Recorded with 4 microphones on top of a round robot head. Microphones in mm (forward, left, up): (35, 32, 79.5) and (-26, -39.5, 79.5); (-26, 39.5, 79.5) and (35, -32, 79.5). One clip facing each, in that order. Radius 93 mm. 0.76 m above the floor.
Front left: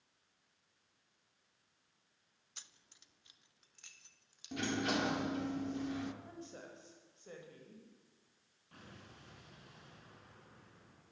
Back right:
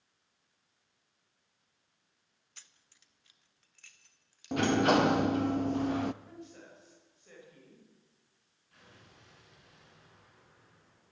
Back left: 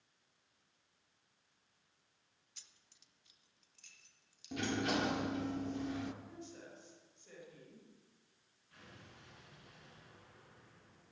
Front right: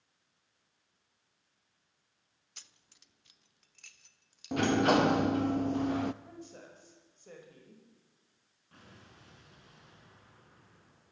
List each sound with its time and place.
2.6 s keys jangling: 20° right, 0.8 m
4.5 s a sliding door: 90° right, 0.6 m
6.2 s a woman speaking: 5° right, 4.5 m
8.7 s an explosion: 5° left, 6 m